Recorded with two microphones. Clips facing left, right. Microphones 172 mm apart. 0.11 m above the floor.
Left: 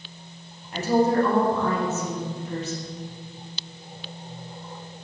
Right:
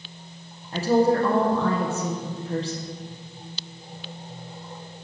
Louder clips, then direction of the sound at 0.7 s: Right 1 dB; 30° right (ahead or behind).